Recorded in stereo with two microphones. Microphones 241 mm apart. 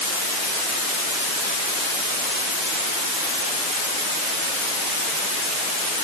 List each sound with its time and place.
Only background noise.